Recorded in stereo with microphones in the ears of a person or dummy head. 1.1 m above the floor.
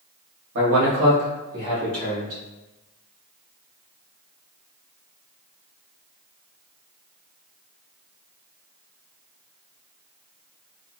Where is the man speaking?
75° right (ahead or behind), 1.1 m; by 2.4 s 55° right (ahead or behind), 2 m.